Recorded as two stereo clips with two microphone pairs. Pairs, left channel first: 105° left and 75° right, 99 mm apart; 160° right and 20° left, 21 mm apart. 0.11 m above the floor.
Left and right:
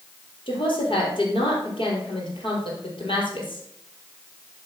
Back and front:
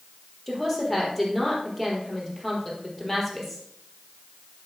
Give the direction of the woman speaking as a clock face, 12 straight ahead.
8 o'clock.